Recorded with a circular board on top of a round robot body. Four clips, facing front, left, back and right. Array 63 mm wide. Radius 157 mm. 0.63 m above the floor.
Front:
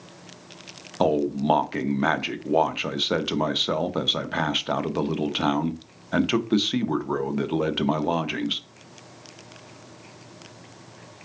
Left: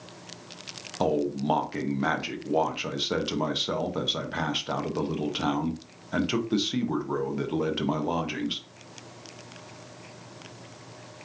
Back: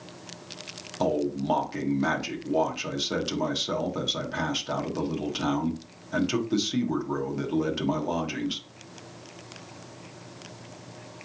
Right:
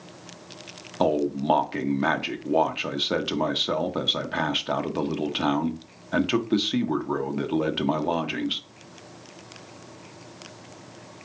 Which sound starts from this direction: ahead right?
A man speaking, at 1.0 s.